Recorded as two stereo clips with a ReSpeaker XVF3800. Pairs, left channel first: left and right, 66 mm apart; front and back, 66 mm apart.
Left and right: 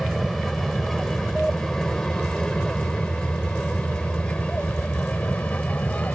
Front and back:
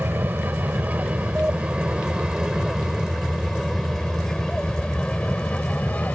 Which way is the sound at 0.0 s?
175° left.